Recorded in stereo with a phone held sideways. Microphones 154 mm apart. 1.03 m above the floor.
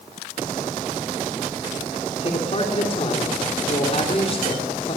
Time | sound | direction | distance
2.2 | a man speaking | 45° left (ahead or behind) | 3 m